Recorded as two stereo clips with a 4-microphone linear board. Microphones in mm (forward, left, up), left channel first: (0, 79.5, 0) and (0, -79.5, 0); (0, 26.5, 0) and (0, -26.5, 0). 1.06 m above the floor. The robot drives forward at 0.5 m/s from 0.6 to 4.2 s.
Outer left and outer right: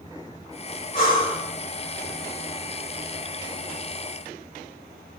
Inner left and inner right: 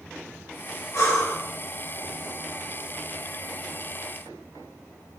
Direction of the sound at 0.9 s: 65° left (ahead or behind).